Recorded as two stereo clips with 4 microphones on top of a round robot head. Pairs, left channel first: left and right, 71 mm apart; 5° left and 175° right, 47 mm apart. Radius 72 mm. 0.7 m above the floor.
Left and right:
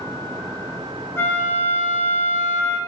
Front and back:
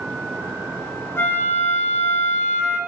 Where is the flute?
35° left, 0.7 m.